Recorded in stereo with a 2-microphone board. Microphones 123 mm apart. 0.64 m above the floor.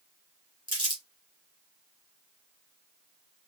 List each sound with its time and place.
0.7 s crumpling: 40° right (ahead or behind), 1.5 m